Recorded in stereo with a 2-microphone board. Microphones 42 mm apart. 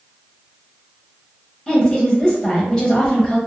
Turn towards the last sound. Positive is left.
turn(degrees=25)  # may be behind; listen again after turning